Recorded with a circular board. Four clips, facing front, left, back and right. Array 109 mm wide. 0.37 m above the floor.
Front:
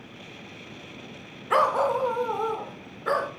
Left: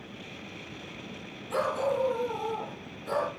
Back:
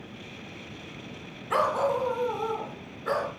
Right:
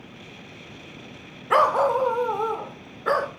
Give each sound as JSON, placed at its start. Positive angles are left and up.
{"t": 1.5, "sound": "a dog barking", "azimuth_deg": -70, "distance_m": 1.3}